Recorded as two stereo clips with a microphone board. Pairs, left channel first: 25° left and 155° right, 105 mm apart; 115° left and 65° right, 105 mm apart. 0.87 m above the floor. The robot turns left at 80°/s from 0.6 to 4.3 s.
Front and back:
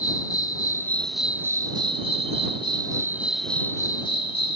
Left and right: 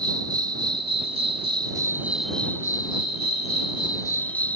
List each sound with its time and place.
0.0 s an insect: 25° right; by 4.6 s 40° left